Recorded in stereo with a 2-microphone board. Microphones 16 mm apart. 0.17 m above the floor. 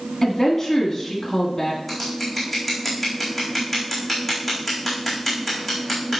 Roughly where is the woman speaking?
Centre.